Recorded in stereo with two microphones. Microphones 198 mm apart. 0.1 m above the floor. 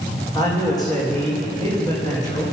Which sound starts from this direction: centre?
A man speaking, at 0.3 s.